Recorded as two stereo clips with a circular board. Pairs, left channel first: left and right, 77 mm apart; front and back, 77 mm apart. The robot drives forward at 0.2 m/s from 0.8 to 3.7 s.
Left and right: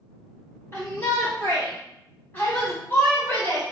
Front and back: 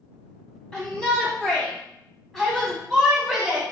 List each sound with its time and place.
0.7 s a shout: 60° left, 1.4 m; by 3.6 s 110° left, 1.4 m